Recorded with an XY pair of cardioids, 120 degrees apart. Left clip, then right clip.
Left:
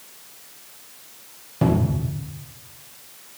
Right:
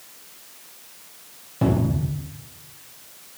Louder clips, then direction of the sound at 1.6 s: Left 1 dB; 10° left.